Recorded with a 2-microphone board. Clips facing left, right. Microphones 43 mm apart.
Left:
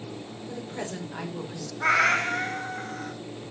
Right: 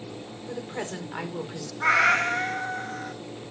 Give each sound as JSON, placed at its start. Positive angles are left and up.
{"t": 0.5, "sound": "a woman speaking", "side_deg": -25, "distance_m": 2.5}
{"t": 1.8, "sound": "a cat meowing", "side_deg": -5, "distance_m": 1.0}